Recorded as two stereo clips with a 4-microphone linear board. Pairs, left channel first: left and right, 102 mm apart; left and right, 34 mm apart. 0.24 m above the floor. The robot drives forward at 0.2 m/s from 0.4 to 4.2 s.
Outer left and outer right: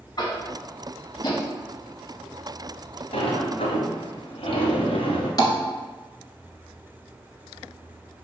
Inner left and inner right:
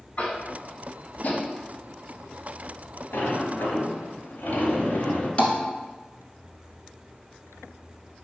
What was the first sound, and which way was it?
Tapping, 45° left (ahead or behind).